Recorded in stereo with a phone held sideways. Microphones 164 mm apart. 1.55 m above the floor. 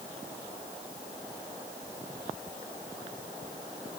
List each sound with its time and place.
Only background noise.